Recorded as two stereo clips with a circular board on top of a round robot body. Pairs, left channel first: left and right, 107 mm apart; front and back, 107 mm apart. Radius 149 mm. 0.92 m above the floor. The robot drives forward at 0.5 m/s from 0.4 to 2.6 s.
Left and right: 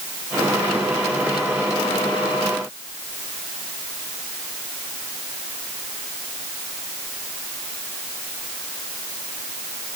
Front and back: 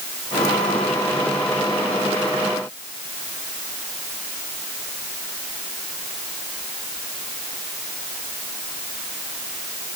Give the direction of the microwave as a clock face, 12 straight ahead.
No microwave in this recording.